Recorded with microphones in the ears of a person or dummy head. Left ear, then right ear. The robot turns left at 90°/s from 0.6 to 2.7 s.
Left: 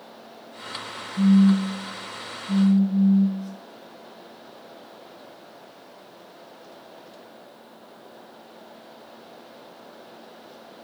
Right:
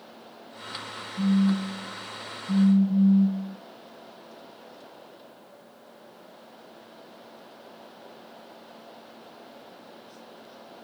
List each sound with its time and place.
1.2 s a phone buzzing: 65° left, 1.4 m; by 3.6 s 75° right, 1.4 m